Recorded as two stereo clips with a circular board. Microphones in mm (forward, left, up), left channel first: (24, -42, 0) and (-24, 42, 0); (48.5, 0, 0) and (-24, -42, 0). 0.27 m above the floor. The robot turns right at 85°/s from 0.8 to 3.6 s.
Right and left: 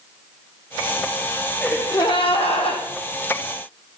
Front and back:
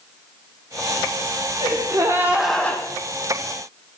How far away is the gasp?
About 2.5 m.